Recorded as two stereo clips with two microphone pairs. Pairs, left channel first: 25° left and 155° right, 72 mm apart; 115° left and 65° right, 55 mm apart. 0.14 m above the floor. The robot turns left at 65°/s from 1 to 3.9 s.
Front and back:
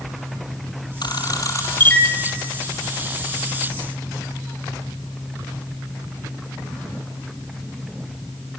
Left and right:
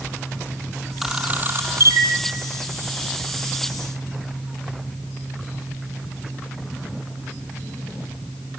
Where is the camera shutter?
15° left, 2 m; by 2.1 s 55° right, 2 m.